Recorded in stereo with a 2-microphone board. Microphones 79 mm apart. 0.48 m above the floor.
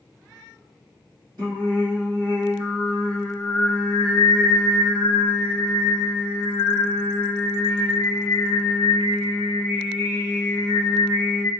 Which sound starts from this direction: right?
Singing, at 1.4 s.